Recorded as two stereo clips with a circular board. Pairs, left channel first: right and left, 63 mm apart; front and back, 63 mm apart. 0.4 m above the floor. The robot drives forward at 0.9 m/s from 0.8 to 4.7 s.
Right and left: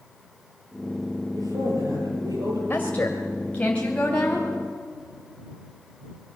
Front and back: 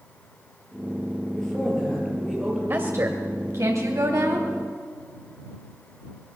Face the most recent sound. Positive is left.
turn(degrees=-165)